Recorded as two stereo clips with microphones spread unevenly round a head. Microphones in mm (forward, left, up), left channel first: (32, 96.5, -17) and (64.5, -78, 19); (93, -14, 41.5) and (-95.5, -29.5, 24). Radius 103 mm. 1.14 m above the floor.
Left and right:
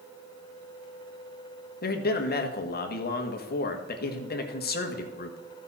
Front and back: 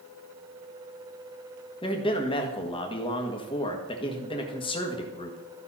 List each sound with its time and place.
1.8 s a man speaking: 70° left, 1.5 m